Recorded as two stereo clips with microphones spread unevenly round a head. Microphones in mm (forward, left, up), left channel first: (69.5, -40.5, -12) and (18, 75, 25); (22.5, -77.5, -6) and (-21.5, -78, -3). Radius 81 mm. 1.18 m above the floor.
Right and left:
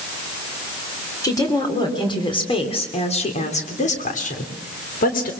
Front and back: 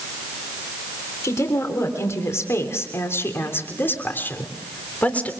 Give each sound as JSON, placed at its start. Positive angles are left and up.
{"t": 1.2, "sound": "a woman speaking", "azimuth_deg": 0, "distance_m": 3.5}